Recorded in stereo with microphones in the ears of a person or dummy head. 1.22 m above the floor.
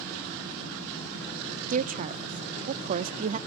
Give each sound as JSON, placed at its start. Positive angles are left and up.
{"t": 1.7, "sound": "a woman speaking", "side_deg": -45, "distance_m": 0.6}